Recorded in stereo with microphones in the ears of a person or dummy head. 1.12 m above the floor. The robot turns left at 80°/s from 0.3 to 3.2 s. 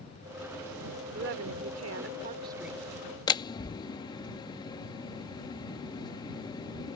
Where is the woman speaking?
50° right; by 2.9 s 170° left.